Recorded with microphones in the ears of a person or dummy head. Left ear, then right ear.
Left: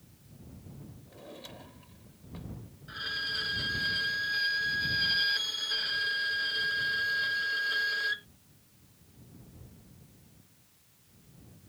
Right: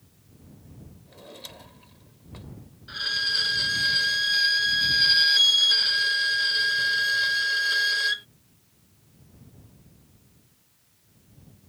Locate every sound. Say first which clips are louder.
1.1 s a drawer: right 4 dB; 20° right (ahead or behind)
2.9 s a violin: right 8 dB; 25° right (ahead or behind)